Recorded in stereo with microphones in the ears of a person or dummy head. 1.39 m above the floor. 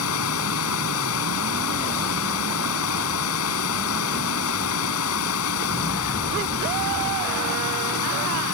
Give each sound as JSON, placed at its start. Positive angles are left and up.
{"t": 0.0, "sound": "running water", "side_deg": 80}